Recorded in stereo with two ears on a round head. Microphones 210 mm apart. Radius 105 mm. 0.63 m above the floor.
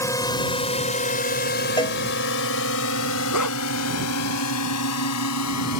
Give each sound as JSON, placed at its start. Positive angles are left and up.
{"t": 0.0, "sound": "a drone", "side_deg": 10}
{"t": 1.8, "sound": "a cowbell", "side_deg": 20}
{"t": 3.3, "sound": "a dog barking", "side_deg": 85}